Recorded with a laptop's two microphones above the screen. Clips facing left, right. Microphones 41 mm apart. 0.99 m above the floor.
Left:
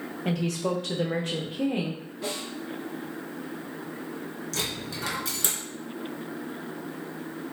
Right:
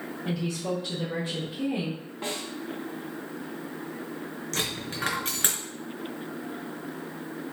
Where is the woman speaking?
60° left (ahead or behind), 0.7 m; by 2.0 s 45° left (ahead or behind), 1.2 m.